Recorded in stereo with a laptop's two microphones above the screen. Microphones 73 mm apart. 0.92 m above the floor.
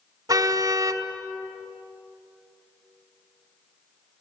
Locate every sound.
0.3 s a car horn: 60° right (ahead or behind), 2 m